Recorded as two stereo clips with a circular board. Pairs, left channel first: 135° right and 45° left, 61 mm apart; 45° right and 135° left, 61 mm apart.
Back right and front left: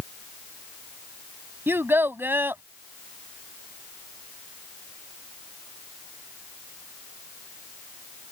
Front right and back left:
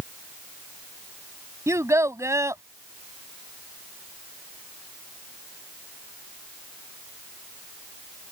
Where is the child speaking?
100° left.